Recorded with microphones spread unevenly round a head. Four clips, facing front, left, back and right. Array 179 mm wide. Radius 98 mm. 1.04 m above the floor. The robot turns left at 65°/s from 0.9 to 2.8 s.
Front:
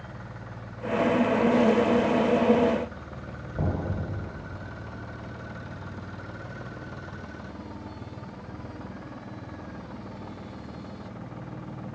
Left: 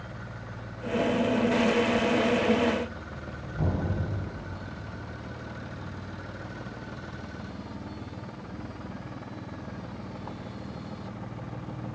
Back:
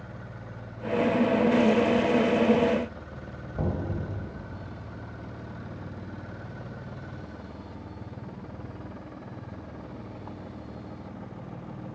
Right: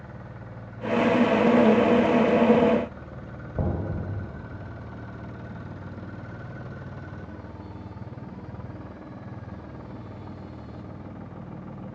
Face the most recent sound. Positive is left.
turn(degrees=-65)